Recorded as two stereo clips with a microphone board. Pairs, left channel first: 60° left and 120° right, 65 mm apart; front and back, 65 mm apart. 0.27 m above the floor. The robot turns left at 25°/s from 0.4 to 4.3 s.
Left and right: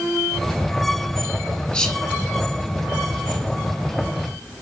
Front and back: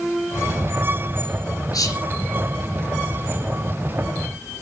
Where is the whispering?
15° right, 5.5 m; by 2.0 s 25° right, 5.5 m.